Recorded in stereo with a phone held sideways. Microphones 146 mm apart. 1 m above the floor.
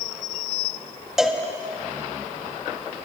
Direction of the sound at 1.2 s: 5° right (ahead or behind).